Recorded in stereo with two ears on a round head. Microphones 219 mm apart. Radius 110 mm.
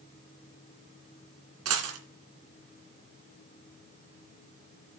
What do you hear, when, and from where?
1.6 s a dropped coin: 65° right (ahead or behind), 2.5 m